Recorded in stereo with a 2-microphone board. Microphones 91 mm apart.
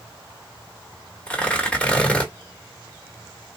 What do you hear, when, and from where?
1.3 s tearing paper: 15° left (ahead or behind), 1.2 m